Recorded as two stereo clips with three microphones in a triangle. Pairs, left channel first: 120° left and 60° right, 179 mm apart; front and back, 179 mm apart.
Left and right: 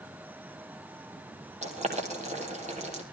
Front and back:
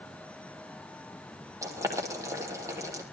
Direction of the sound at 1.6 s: 110° right.